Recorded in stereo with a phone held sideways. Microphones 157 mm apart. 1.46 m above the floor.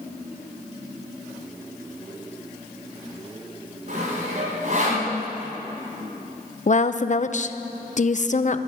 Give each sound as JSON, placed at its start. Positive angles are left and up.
{"t": 3.9, "sound": "sawing", "side_deg": -50, "distance_m": 5.5}
{"t": 6.7, "sound": "a woman speaking", "side_deg": 50, "distance_m": 0.6}